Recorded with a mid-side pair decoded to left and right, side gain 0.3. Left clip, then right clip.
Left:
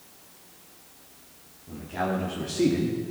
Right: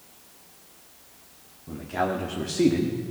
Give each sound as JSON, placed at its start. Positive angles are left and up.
{"t": 1.7, "sound": "a man speaking", "azimuth_deg": -60, "distance_m": 2.0}